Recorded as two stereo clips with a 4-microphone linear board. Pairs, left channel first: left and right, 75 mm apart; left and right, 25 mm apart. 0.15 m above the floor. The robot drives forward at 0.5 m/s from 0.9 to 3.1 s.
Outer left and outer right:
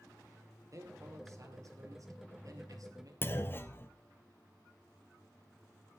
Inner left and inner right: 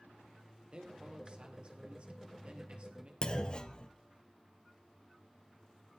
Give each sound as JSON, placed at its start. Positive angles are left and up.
{"t": 0.7, "sound": "a man speaking", "side_deg": -50, "distance_m": 4.5}
{"t": 3.2, "sound": "a clunk", "side_deg": 30, "distance_m": 1.1}